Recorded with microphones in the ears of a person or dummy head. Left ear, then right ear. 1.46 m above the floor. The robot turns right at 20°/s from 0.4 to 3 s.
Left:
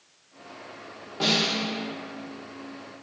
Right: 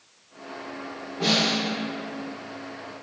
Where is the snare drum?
60° left (ahead or behind), 0.9 m; by 1.6 s 55° left (ahead or behind), 0.9 m.